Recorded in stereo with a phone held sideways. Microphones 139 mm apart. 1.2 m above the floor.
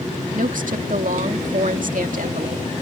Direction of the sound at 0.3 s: 80° right.